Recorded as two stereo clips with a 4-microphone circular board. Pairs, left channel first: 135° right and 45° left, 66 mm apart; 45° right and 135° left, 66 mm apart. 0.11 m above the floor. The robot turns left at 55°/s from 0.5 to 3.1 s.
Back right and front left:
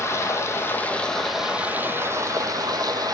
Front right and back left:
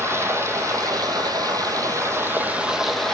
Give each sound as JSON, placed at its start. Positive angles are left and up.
{"t": 0.0, "sound": "running water", "azimuth_deg": 180, "distance_m": 0.9}